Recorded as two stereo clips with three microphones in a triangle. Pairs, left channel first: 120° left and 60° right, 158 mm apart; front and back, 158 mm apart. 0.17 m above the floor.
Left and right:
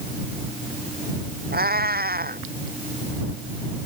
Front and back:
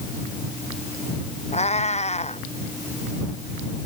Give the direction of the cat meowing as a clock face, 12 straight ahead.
2 o'clock.